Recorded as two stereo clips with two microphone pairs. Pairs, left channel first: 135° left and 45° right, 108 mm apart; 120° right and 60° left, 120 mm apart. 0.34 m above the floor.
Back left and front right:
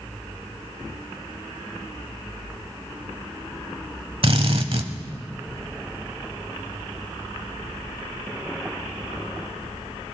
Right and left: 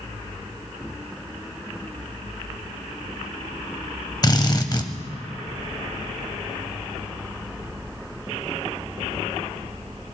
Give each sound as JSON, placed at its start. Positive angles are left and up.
{"t": 4.2, "sound": "a drill", "azimuth_deg": -70, "distance_m": 1.0}